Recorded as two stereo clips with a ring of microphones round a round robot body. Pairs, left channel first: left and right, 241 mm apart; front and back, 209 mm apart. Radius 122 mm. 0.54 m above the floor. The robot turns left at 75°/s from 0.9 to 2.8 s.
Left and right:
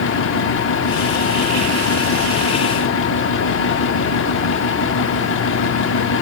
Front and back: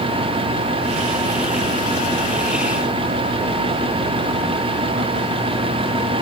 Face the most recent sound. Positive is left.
No sound to turn to.